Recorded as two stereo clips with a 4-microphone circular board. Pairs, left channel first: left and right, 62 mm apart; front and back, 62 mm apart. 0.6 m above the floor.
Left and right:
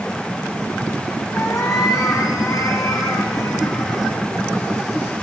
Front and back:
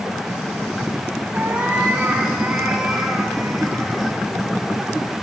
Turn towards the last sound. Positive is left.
turn(degrees=90)